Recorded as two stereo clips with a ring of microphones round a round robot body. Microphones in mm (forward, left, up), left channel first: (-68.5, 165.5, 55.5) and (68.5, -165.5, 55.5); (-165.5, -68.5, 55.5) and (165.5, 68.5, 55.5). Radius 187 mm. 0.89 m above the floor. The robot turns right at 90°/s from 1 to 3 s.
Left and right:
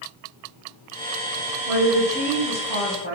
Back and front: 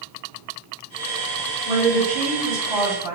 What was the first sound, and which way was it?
A woman speaking, 45° right.